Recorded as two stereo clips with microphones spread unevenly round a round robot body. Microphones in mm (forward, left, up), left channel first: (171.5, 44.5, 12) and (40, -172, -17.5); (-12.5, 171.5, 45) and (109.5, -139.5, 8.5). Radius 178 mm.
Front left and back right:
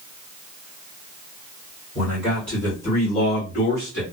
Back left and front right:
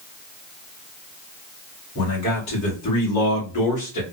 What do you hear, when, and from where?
1.9 s a man speaking: 160° left, 1.5 m; by 4.0 s 105° left, 1.0 m